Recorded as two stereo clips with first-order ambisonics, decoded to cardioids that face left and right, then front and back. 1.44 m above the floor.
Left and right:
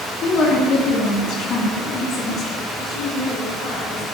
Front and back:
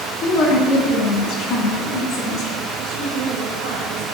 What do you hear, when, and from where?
0.2 s a woman speaking: 35° left, 2.5 m
2.8 s a woman speaking: 175° left, 2 m